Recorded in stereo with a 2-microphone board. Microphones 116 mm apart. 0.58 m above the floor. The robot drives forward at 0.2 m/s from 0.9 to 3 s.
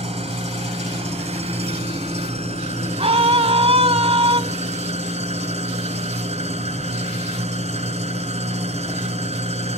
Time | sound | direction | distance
0.0 | an engine running | 70° right (ahead or behind) | 2 m
3.0 | a scream | 65° right (ahead or behind) | 2.5 m